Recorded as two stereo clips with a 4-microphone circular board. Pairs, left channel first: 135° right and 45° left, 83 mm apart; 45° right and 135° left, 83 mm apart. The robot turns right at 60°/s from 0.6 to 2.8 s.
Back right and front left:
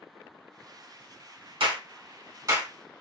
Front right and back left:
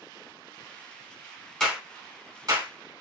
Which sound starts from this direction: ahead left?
A clap, at 1.6 s.